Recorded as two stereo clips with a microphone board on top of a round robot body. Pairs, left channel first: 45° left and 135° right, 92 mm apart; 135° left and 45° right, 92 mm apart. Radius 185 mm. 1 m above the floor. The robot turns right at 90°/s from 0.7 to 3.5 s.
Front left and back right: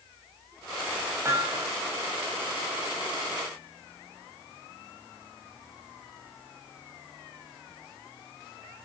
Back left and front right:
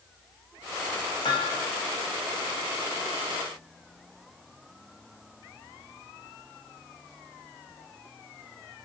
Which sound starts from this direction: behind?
Hammering, at 1.2 s.